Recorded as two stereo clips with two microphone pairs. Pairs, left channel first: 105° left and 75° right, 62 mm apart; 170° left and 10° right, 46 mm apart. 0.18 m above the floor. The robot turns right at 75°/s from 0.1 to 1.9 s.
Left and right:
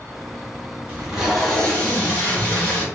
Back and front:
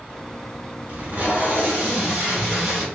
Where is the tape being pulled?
20° right, 1.3 m; by 2.9 s 55° left, 1.3 m.